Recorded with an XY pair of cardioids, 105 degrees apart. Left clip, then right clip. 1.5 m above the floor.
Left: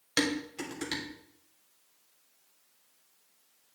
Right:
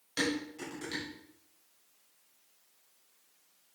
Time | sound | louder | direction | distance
0.2 | dishes clattering | left 3 dB | 65° left | 3 m